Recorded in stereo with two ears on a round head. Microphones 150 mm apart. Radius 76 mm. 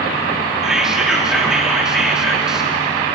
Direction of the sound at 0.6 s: 5° right (ahead or behind).